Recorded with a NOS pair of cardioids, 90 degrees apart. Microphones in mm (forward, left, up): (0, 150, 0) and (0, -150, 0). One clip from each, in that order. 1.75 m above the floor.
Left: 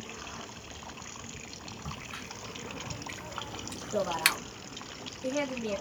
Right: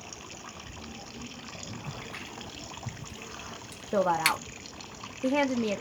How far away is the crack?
About 1.1 m.